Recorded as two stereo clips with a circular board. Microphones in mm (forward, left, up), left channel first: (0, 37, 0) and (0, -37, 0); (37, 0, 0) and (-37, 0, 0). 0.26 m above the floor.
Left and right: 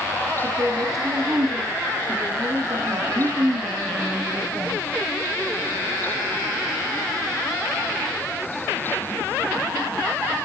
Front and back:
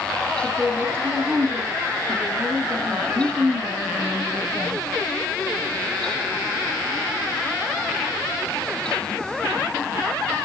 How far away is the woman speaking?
About 2 m.